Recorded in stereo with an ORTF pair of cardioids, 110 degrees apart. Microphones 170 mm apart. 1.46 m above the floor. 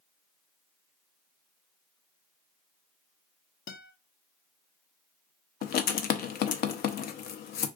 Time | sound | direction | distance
3.7 | a guitar | 60° left | 0.7 m
5.6 | writing | 65° left | 0.6 m